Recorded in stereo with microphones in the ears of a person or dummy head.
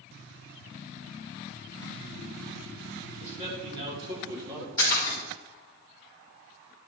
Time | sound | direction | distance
3.2 | a man speaking | 35° right (ahead or behind) | 4 m
4.8 | a splash | 15° left (ahead or behind) | 3.5 m